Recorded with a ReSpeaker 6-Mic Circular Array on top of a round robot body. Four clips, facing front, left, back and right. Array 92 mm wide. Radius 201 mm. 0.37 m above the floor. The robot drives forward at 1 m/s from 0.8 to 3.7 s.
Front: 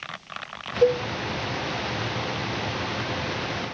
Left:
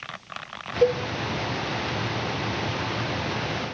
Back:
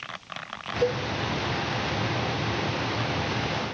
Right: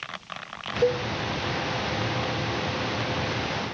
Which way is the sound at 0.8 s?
70° left.